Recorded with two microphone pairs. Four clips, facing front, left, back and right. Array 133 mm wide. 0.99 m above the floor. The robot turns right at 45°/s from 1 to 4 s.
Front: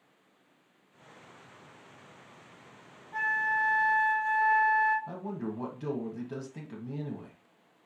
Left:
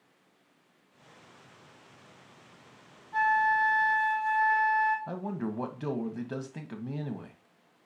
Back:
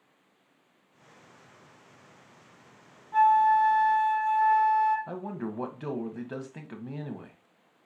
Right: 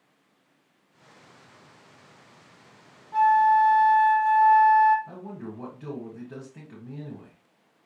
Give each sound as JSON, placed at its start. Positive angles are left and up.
{"t": 3.1, "sound": "a flute", "azimuth_deg": -115, "distance_m": 2.0}
{"t": 5.1, "sound": "a man speaking", "azimuth_deg": 140, "distance_m": 1.0}